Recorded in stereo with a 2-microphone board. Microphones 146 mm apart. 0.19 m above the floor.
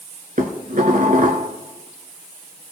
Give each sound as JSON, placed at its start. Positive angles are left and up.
{"t": 0.4, "sound": "dishes clattering", "side_deg": -65, "distance_m": 1.5}